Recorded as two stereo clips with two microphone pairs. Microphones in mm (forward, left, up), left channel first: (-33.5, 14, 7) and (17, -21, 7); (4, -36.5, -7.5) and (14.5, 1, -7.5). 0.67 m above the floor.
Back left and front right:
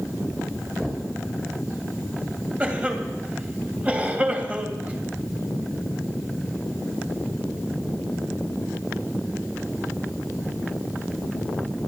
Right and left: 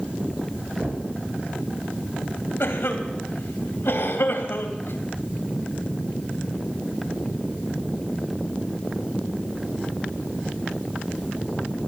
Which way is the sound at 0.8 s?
55° left.